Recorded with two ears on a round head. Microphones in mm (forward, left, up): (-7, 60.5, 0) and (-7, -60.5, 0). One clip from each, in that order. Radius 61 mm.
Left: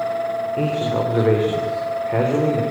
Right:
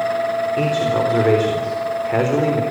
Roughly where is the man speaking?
Right.